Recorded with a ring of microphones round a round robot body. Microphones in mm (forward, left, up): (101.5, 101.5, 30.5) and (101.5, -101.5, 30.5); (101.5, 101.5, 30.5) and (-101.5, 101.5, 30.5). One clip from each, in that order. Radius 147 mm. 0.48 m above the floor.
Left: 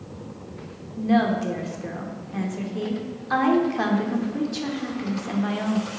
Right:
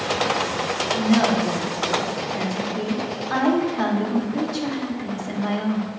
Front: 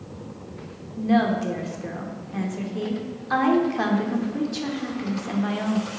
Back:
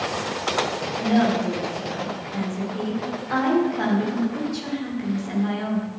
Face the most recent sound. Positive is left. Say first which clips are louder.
# even, even
turn(degrees=35)